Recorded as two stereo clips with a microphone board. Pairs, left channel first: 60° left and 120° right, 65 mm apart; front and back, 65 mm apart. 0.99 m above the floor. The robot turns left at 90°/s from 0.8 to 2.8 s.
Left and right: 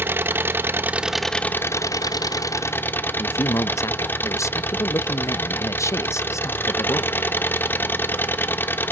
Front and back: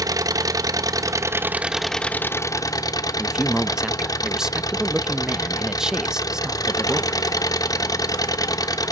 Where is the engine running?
175° right, 1.0 m; by 8.9 s 5° left, 1.0 m.